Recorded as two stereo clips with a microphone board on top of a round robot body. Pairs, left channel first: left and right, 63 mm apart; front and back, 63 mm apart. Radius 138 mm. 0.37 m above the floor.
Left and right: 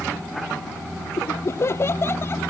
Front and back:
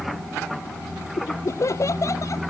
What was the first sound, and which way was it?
Laughter, 45° left.